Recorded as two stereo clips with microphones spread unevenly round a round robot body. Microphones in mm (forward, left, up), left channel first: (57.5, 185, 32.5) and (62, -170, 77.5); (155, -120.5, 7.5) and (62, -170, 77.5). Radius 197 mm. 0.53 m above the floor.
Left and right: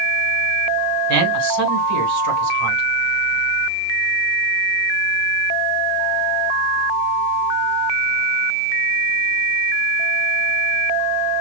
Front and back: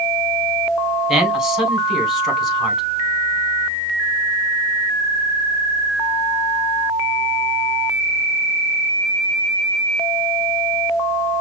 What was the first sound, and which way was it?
A man speaking, 45° right.